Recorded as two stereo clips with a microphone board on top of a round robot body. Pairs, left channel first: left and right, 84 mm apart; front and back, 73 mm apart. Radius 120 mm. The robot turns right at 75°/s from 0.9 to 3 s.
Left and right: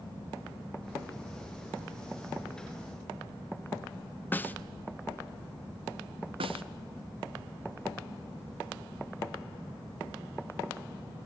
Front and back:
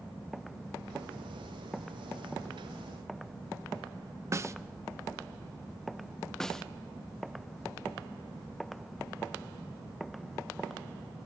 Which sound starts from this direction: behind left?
A snare drum, at 4.3 s.